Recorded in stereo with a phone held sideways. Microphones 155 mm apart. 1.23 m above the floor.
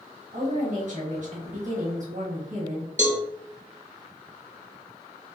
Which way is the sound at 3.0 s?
50° right (ahead or behind).